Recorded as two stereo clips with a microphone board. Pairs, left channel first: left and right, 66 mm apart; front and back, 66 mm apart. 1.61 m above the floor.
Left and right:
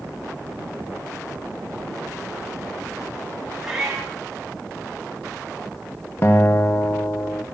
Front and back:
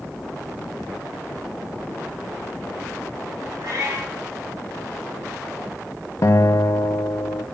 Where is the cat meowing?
170° right, 3.5 m.